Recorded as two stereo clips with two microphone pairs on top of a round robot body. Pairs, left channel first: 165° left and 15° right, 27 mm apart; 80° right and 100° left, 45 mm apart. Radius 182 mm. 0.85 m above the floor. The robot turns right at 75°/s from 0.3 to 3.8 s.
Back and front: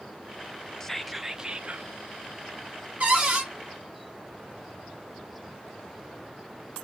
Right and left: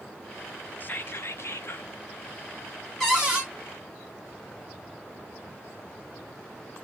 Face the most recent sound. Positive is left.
turn(degrees=65)